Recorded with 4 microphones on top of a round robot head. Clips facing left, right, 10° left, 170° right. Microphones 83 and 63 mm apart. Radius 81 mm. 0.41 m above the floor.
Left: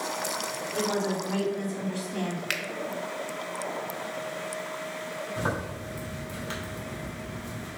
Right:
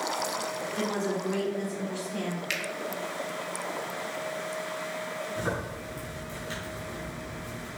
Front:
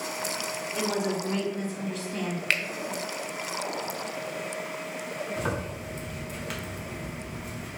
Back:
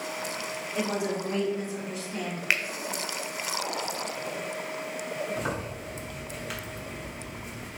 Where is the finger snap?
110° left, 1.0 m.